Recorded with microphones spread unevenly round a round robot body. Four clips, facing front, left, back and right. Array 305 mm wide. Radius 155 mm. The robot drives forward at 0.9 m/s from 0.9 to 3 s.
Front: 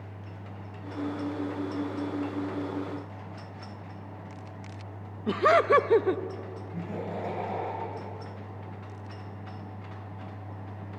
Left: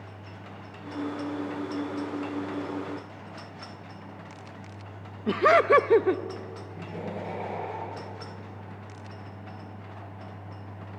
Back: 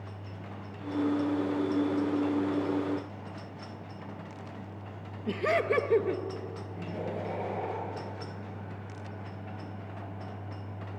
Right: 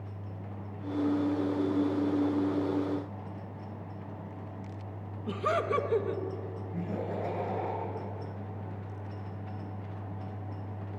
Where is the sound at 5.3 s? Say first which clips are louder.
Left 10 dB, front 6 dB; 70° left, 0.7 m.